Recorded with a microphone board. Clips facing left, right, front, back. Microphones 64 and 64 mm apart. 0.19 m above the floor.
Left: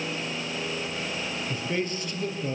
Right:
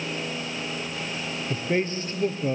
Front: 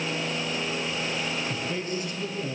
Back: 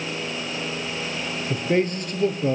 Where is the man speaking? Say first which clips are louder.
Right 5 dB, back 8 dB; 150° right, 5 m.